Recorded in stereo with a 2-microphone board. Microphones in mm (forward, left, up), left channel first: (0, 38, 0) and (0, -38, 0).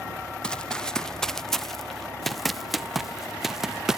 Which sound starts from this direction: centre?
Running footsteps, at 0.4 s.